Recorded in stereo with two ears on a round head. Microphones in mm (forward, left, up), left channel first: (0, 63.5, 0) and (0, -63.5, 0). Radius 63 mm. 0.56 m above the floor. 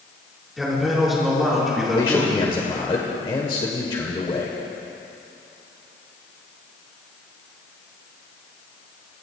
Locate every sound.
0.6 s a man speaking: centre (ahead or behind), 6.5 m
1.9 s a man speaking: 35° left (ahead or behind), 1.7 m